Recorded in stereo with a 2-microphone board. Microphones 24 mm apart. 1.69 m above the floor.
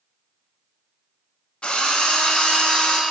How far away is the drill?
About 1.1 m.